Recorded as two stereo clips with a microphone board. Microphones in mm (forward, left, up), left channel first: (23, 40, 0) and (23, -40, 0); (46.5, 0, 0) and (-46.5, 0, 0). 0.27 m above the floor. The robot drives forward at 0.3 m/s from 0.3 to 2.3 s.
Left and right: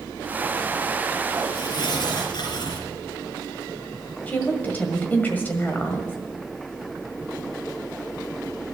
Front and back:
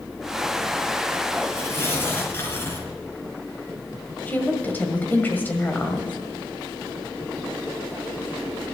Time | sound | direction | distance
1.6 | tearing paper | 65° left | 4 m
4.3 | a woman speaking | 50° left | 1.6 m